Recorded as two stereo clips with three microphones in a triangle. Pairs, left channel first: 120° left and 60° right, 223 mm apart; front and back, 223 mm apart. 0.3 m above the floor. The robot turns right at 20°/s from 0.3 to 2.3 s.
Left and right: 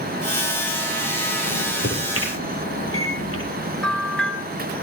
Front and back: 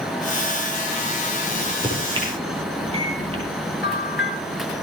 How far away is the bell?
About 1.9 m.